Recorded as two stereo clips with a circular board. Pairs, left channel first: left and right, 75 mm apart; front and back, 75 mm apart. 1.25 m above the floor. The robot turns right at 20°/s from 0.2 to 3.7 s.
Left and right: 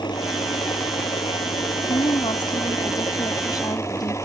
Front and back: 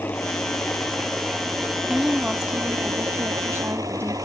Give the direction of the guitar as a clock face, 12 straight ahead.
I don't hear a guitar.